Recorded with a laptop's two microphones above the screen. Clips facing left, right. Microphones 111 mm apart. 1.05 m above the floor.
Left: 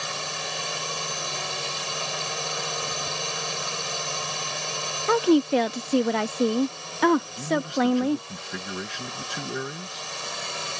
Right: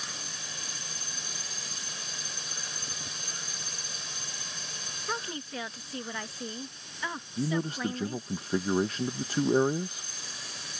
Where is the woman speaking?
80° left.